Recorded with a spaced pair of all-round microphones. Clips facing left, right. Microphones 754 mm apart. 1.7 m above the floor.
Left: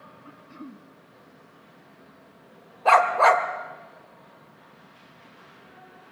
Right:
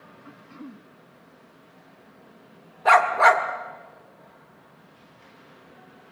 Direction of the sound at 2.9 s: 50° right (ahead or behind).